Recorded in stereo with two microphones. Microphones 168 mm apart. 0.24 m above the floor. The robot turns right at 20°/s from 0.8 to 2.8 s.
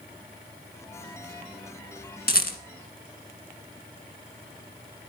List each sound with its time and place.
2.3 s a rattle: 70° left (ahead or behind), 1.3 m; by 2.6 s 65° left (ahead or behind), 1.3 m